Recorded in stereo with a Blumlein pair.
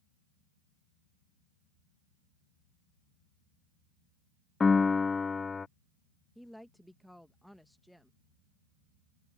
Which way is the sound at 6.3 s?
Straight ahead.